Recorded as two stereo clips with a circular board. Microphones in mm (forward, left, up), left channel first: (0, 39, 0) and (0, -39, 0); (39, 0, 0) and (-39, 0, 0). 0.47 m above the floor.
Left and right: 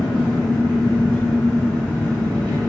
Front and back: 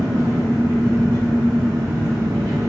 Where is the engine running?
145° left, 1.2 m.